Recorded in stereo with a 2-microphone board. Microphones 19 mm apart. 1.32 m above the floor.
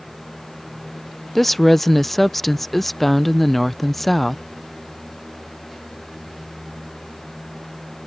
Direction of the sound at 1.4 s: 5° left (ahead or behind).